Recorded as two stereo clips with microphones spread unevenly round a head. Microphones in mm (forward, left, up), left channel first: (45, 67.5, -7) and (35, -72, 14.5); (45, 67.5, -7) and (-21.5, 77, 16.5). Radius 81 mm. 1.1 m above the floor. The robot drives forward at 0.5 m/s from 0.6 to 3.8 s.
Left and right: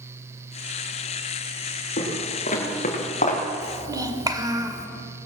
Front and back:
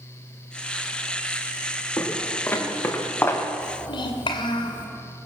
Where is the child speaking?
30° right, 2.5 m.